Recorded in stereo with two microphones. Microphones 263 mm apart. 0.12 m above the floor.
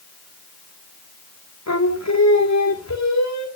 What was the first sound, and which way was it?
Singing, 75° left (ahead or behind).